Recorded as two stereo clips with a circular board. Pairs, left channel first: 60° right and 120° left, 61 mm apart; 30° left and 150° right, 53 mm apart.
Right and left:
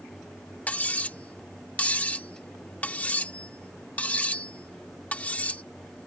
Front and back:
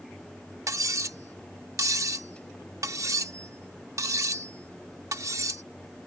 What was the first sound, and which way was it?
Cutlery clinking, 130° right.